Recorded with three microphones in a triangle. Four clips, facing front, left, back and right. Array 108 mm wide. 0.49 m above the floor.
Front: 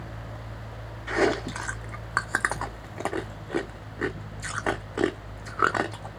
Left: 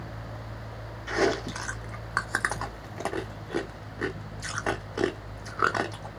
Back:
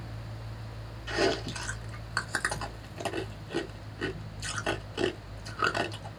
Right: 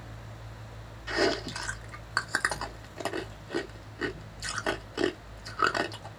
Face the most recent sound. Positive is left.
turn(degrees=10)